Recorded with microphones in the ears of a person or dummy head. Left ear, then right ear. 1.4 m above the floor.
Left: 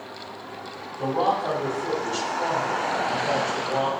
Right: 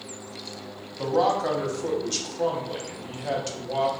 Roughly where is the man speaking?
Right.